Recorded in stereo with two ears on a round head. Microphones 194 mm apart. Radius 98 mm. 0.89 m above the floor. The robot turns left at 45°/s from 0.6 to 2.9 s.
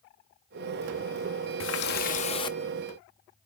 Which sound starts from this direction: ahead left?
A running tap, at 1.6 s.